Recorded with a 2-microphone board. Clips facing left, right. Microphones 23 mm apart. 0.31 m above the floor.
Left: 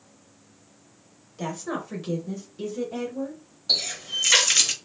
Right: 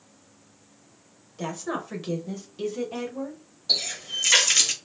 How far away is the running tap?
About 0.6 m.